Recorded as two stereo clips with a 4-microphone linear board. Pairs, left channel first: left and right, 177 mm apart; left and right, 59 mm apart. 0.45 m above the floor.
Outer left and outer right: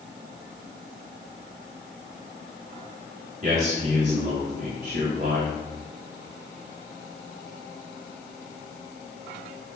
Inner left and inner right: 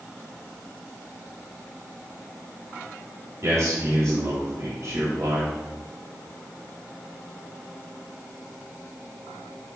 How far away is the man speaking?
About 2 m.